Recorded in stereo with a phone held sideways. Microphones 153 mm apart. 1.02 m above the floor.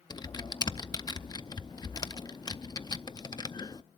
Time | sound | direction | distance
0.1 | typing on a keyboard | 30° left (ahead or behind) | 0.5 m